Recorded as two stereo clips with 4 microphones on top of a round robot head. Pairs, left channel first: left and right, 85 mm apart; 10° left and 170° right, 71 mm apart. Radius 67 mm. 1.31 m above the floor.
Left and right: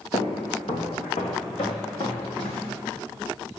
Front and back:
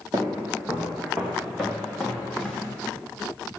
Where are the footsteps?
135° left, 3 m; by 2.6 s 95° left, 5.5 m.